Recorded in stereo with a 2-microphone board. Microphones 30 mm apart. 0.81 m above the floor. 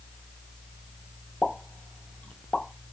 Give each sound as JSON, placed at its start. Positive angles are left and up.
{"t": 1.4, "sound": "a pop", "side_deg": 40, "distance_m": 0.5}